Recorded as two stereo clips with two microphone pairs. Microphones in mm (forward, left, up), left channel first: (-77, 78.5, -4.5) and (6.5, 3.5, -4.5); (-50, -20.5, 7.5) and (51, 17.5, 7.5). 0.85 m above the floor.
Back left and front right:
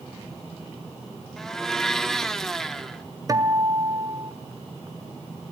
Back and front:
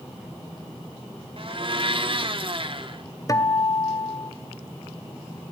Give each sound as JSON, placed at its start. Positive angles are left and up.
{"t": 1.4, "sound": "a blender", "azimuth_deg": 55, "distance_m": 1.8}
{"t": 3.3, "sound": "a guitar", "azimuth_deg": -100, "distance_m": 1.7}